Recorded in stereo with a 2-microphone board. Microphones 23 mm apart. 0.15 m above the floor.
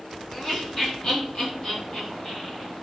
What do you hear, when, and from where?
0.3 s laughter: 30° left (ahead or behind), 1.6 m; by 2.7 s 35° left (ahead or behind), 2.5 m